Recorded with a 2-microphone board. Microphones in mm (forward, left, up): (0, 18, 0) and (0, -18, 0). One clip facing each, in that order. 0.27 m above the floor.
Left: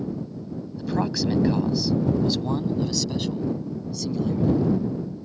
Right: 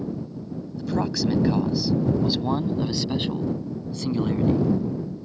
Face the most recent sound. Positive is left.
turn(degrees=-45)  # may be behind; listen again after turning